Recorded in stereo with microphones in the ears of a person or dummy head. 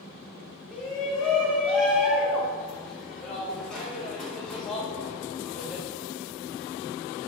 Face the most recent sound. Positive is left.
turn(degrees=5)  # may be behind; listen again after turning